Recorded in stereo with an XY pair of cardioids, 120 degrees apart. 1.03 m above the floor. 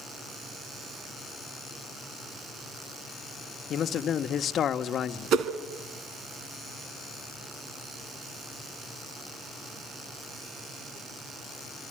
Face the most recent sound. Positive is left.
turn(degrees=-65)